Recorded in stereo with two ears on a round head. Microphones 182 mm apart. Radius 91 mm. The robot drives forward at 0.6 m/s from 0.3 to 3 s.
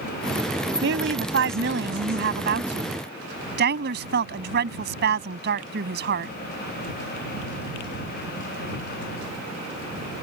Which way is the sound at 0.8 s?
65° right (ahead or behind).